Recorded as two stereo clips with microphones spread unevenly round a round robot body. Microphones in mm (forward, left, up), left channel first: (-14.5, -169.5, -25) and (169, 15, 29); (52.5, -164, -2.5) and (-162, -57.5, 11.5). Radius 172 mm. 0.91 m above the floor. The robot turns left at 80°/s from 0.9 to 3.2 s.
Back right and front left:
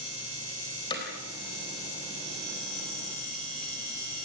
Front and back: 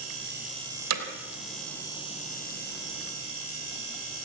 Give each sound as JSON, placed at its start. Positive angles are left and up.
{"t": 0.9, "sound": "hammering", "azimuth_deg": 150, "distance_m": 3.5}